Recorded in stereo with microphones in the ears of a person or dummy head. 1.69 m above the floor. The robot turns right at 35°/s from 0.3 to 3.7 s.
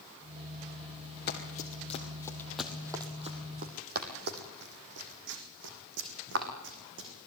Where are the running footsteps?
50° left (ahead or behind), 2.5 m; by 7.1 s 70° right (ahead or behind), 5.5 m.